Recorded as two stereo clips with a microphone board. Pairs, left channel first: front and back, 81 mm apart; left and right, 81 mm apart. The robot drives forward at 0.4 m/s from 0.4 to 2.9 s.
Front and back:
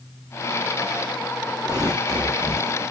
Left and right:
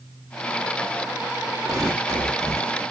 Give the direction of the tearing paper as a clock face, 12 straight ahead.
4 o'clock.